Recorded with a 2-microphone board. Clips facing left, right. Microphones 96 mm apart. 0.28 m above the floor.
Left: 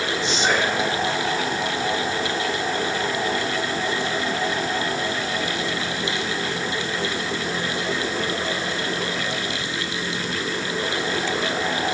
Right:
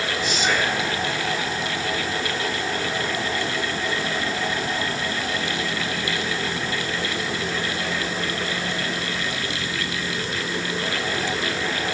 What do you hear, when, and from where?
0.2 s whispering: 30° left (ahead or behind), 1.2 m